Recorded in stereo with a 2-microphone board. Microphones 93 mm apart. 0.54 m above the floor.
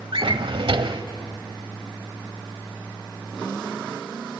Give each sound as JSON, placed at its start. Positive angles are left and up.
{"t": 0.1, "sound": "a drawer", "side_deg": -65, "distance_m": 0.9}